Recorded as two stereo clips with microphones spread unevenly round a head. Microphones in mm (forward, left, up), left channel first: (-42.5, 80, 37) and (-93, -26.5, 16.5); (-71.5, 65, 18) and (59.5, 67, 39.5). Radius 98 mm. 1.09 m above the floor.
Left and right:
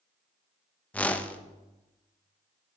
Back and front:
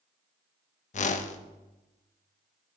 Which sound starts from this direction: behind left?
A whoosh, at 0.9 s.